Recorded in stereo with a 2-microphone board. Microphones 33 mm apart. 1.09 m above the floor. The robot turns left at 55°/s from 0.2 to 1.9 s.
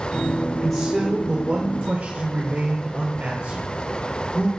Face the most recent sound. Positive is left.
turn(degrees=-55)